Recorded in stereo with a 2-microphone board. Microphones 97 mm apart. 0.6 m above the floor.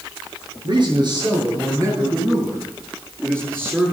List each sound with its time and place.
0.6 s a man speaking: 50° right (ahead or behind), 9 m; by 3.9 s 20° right (ahead or behind), 9.5 m